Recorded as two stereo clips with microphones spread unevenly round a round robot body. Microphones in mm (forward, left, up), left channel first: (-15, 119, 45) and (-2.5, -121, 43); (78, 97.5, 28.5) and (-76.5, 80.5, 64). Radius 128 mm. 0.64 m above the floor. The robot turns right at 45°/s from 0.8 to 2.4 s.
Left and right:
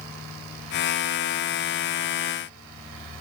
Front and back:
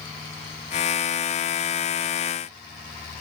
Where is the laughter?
I don't hear laughter.